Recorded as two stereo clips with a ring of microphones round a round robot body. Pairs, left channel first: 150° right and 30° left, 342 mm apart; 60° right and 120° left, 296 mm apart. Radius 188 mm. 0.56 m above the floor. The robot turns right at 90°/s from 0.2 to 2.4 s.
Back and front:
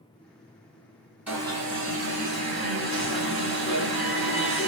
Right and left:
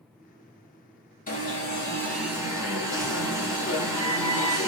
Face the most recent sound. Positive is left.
turn(degrees=50)